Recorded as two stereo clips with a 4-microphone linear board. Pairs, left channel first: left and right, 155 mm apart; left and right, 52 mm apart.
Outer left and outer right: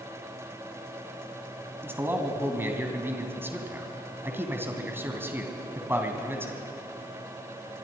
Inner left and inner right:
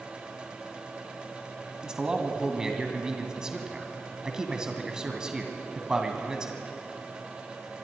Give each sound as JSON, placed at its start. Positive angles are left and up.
{"t": 1.8, "sound": "a man speaking", "side_deg": -15, "distance_m": 2.5}